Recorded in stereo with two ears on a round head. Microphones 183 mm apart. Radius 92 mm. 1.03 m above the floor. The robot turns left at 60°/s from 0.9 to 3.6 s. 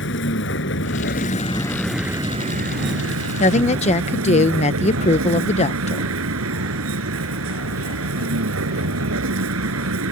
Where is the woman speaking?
35° left (ahead or behind).